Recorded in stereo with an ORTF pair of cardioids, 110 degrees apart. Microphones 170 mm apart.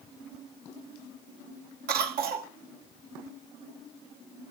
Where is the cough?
65° right, 2 m.